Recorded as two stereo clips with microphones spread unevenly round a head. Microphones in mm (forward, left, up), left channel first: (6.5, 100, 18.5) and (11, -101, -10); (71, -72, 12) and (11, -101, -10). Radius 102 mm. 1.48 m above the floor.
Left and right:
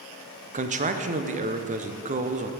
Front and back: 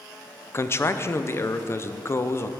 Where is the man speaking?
30° right, 0.7 m.